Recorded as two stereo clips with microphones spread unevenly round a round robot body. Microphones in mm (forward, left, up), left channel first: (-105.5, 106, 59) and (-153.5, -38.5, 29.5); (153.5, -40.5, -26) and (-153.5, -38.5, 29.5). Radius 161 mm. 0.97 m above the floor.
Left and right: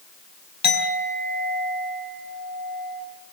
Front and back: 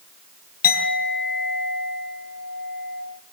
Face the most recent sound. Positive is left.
turn(degrees=65)